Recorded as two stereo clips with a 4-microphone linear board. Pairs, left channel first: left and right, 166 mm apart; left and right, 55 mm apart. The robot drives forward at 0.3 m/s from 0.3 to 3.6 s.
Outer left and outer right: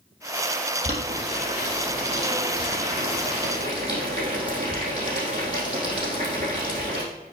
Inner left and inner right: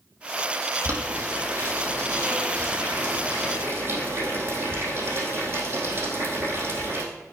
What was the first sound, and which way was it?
Boiling, 45° right (ahead or behind).